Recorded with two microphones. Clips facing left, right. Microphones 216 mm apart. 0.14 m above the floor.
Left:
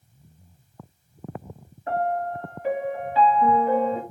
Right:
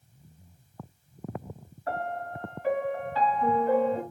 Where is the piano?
20° left (ahead or behind), 2 m.